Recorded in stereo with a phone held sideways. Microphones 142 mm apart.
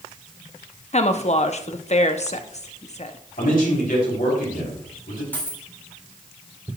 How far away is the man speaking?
About 3.5 m.